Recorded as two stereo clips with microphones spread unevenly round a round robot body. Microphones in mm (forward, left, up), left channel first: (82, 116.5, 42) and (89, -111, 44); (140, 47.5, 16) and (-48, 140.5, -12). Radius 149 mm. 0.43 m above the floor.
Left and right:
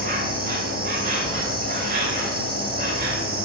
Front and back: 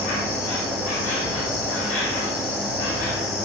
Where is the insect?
45° right, 1.6 m.